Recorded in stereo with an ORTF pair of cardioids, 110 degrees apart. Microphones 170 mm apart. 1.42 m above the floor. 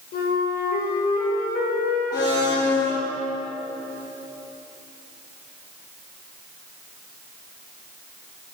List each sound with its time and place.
0.1 s a flute: 65° left, 7 m
2.1 s a blender: 25° left, 9 m